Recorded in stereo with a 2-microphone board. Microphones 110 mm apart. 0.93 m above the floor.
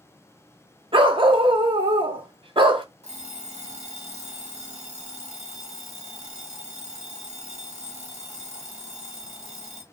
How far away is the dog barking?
About 0.5 m.